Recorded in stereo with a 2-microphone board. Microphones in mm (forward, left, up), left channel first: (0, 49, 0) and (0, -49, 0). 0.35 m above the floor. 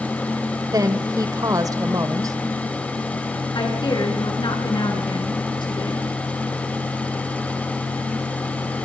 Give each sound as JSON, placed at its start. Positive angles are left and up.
{"t": 0.7, "sound": "a woman speaking", "side_deg": -35, "distance_m": 1.6}
{"t": 3.5, "sound": "a woman speaking", "side_deg": 50, "distance_m": 5.0}